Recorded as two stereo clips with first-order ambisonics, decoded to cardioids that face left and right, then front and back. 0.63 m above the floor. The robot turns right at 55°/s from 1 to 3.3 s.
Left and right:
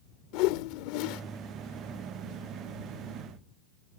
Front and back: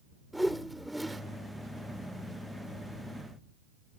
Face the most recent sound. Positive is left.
turn(degrees=-145)